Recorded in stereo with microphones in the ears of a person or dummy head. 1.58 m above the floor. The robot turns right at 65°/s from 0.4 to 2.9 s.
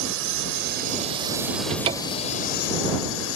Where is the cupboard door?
45° right; by 2.3 s straight ahead.